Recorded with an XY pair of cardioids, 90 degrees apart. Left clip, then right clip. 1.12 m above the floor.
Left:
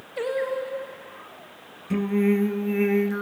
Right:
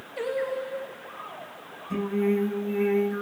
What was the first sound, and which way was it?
Singing, 25° left.